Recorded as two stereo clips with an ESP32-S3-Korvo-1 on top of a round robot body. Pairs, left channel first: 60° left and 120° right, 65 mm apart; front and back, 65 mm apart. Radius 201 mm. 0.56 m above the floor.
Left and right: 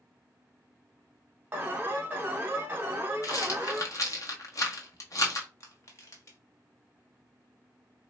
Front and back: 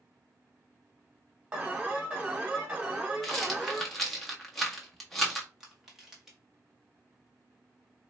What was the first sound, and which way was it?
An alarm, 130° right.